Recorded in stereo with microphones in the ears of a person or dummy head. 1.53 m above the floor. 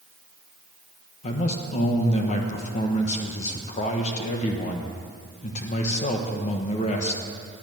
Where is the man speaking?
45° left (ahead or behind), 1.4 m.